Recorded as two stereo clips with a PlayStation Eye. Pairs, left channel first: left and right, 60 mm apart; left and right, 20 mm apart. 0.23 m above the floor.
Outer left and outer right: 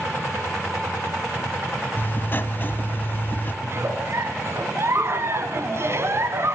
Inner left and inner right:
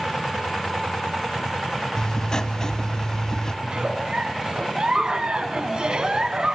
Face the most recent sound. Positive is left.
turn(degrees=-50)  # may be behind; listen again after turning